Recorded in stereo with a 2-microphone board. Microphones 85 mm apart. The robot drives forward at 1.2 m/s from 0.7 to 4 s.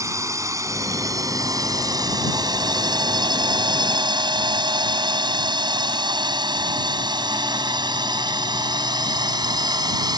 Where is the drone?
40° right (ahead or behind); by 10.2 s 55° right (ahead or behind).